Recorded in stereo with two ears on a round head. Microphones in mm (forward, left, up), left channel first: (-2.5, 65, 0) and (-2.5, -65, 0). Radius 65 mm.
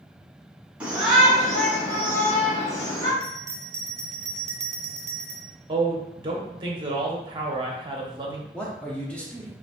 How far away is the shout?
About 1.7 m.